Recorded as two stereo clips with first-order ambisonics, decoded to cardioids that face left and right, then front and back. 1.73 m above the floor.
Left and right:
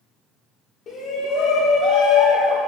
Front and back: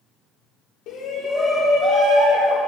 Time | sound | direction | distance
0.9 | a shout | 35° left | 1.1 m